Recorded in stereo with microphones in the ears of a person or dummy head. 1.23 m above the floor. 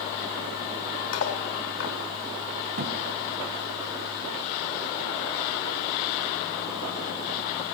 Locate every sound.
1.1 s cutlery clinking: 80° left, 2.5 m
2.8 s a thud: 40° right (ahead or behind), 4 m